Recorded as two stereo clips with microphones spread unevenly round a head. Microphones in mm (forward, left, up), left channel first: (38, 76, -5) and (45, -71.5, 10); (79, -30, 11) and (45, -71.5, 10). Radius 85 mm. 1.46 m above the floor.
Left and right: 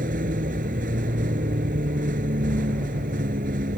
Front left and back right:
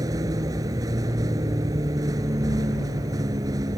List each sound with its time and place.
0.0 s a vehicle: 135° right